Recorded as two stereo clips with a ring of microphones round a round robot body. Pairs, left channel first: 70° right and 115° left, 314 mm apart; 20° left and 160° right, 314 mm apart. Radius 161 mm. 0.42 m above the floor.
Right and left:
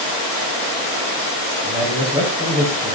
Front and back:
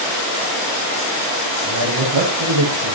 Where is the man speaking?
175° right, 7 m.